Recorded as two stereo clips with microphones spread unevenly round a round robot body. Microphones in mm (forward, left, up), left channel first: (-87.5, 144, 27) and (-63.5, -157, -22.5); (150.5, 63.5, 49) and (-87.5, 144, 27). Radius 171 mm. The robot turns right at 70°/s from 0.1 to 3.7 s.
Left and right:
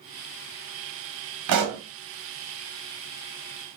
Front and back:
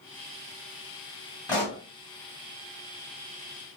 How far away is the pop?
About 1.3 m.